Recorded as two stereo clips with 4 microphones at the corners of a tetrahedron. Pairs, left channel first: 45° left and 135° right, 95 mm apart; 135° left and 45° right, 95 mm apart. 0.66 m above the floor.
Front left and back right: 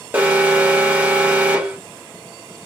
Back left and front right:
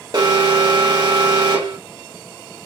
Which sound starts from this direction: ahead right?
An alarm, at 0.1 s.